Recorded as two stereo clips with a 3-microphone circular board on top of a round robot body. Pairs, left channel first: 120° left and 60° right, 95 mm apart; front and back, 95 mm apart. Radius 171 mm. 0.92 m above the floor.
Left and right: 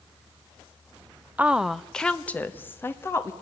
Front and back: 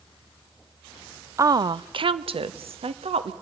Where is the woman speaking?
130° right, 0.8 m; by 3.3 s 175° right, 2 m.